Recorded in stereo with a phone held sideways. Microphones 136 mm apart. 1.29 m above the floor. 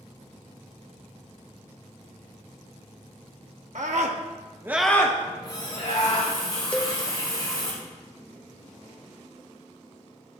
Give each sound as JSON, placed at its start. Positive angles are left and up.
{"t": 3.8, "sound": "a scream", "side_deg": -75, "distance_m": 1.4}
{"t": 5.2, "sound": "a running tap", "side_deg": 35, "distance_m": 3.5}
{"t": 6.7, "sound": "a cowbell", "side_deg": 5, "distance_m": 0.5}